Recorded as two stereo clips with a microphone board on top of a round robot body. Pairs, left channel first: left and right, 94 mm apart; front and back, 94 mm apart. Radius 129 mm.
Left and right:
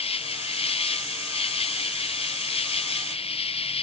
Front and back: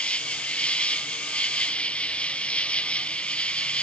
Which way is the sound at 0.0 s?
75° left.